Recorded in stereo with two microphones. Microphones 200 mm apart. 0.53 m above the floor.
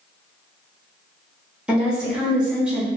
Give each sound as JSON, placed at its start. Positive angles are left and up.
{"t": 1.7, "sound": "a woman speaking", "side_deg": -5, "distance_m": 1.3}